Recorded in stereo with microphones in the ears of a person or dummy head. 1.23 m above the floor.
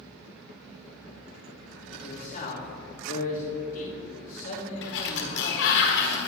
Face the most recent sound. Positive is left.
turn(degrees=65)  # may be behind; listen again after turning